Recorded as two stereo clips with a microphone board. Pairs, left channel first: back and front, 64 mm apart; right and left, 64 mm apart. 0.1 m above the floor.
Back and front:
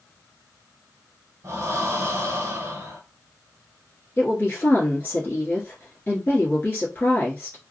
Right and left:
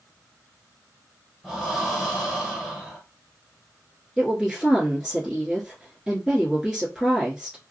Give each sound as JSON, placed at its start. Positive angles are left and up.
{"t": 1.4, "sound": "breathing", "azimuth_deg": 15, "distance_m": 0.9}
{"t": 4.2, "sound": "a woman speaking", "azimuth_deg": 165, "distance_m": 1.2}